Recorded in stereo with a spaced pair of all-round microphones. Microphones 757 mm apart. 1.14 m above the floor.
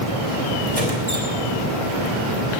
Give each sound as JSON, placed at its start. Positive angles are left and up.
{"t": 0.7, "sound": "a squeak", "side_deg": -50, "distance_m": 3.0}